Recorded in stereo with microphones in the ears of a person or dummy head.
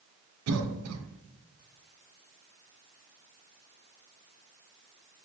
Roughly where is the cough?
Right.